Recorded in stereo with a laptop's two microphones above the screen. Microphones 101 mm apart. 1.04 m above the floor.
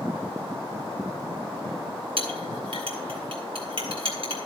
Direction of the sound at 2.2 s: 65° right (ahead or behind).